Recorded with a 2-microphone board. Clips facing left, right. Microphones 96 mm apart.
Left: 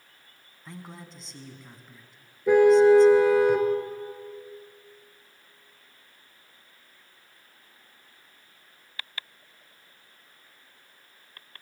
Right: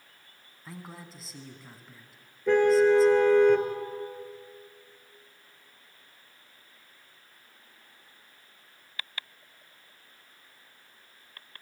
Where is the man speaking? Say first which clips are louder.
Left 1 dB; 5° right (ahead or behind), 2.5 m.